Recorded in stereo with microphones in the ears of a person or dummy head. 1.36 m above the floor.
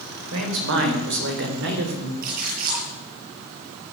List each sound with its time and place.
0.3 s a man speaking: 70° right (ahead or behind), 4.5 m; by 2.1 s 60° right (ahead or behind), 3.5 m
2.2 s a splash: 50° right (ahead or behind), 9.5 m